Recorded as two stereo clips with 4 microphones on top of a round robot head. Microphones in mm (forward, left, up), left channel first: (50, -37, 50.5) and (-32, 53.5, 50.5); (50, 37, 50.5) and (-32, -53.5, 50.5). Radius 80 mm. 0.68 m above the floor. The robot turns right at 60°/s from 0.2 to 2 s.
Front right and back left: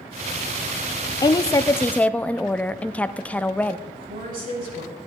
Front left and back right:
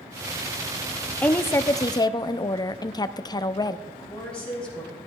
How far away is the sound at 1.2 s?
About 0.6 m.